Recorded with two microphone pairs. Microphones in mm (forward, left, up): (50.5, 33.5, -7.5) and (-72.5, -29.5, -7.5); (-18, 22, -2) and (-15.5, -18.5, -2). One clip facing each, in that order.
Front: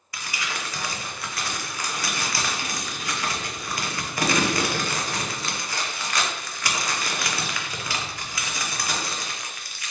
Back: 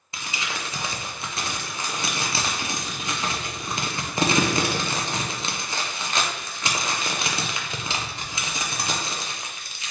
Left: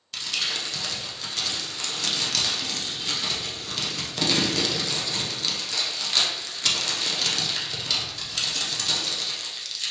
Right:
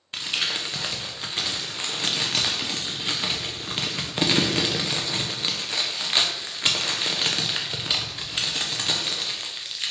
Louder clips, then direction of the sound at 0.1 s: Even, right 2 dB; 110° right.